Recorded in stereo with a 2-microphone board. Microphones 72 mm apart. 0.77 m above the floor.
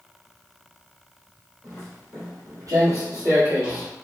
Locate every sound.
1.6 s footsteps: 60° right (ahead or behind), 1.5 m; by 3.9 s 25° right (ahead or behind), 1.2 m